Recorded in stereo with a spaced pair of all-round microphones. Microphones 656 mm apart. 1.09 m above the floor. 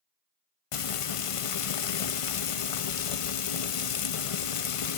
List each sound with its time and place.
0.7 s frying: 55° left (ahead or behind), 0.5 m